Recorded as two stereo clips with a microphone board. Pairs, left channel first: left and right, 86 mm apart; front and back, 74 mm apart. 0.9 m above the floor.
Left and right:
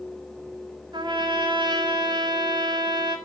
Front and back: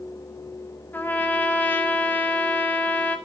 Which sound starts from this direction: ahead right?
A trumpet, at 0.9 s.